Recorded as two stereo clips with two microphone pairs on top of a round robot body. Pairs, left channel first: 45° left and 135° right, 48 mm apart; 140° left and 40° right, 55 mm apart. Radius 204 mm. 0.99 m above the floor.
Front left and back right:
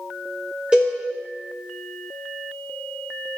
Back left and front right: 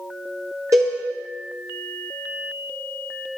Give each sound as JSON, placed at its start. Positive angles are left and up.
{"t": 0.7, "sound": "a cowbell", "azimuth_deg": -75, "distance_m": 0.8}